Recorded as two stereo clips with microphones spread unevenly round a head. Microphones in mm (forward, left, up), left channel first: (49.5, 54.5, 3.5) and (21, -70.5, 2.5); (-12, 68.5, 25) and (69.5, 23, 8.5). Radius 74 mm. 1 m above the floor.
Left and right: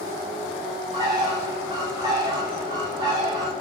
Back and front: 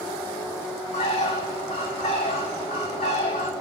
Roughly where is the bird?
Behind.